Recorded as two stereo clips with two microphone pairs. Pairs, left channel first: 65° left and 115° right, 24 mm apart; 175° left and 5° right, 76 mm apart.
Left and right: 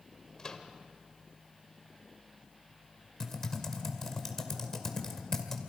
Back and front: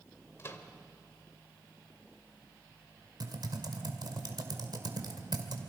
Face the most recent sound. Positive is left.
turn(degrees=-5)